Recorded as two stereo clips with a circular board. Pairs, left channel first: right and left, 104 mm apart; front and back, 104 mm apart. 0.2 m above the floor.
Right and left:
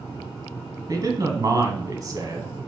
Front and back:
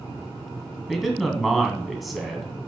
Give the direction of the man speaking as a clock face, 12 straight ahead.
9 o'clock.